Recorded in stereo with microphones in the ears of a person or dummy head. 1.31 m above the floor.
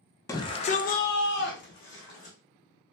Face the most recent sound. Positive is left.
turn(degrees=50)  # may be behind; listen again after turning